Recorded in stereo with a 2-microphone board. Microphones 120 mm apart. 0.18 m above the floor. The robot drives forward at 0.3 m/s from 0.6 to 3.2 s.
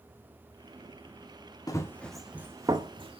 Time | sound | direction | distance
1.7 | running footsteps | 30° left (ahead or behind) | 0.7 m